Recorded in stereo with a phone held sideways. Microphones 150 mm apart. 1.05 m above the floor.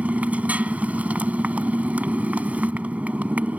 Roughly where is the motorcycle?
Centre.